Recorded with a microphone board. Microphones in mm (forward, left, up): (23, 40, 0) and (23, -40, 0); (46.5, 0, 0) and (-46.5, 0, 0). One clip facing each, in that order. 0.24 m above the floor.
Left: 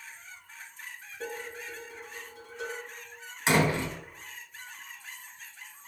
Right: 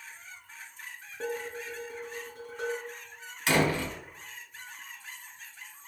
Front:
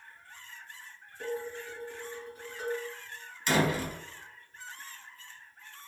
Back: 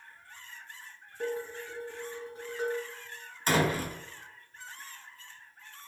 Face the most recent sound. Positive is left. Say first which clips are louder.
# left 1 dB, even
turn(degrees=150)